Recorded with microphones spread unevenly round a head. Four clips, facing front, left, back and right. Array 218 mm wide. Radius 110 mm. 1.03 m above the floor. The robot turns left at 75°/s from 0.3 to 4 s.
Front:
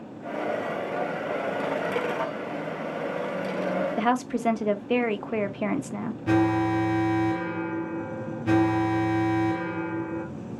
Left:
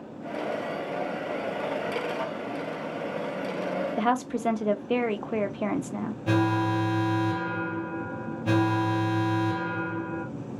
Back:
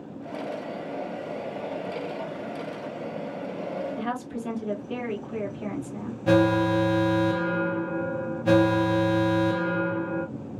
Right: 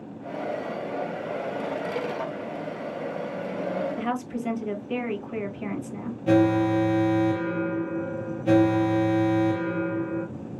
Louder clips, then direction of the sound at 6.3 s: Right 5 dB, back 2 dB; 165° right.